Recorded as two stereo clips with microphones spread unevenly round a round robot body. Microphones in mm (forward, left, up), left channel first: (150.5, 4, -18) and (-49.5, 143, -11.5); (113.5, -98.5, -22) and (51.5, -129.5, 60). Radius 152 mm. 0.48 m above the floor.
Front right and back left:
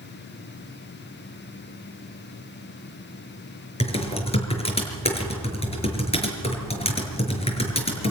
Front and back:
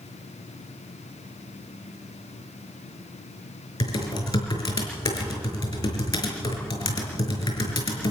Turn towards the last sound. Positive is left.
turn(degrees=30)